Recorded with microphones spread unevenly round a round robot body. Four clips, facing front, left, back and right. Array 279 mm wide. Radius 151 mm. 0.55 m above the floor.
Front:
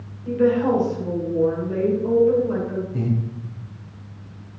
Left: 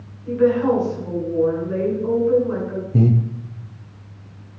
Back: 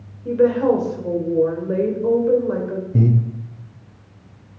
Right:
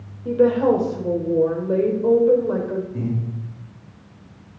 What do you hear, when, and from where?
0.2 s a woman speaking: 135° right, 3 m
2.9 s breathing: 125° left, 0.9 m